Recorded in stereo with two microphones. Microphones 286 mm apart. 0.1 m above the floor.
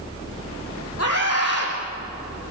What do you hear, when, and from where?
1.0 s a scream: 55° left (ahead or behind), 6.5 m